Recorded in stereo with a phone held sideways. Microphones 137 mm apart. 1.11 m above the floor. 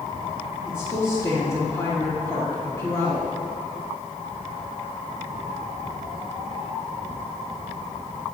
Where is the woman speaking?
20° left (ahead or behind), 1.5 m.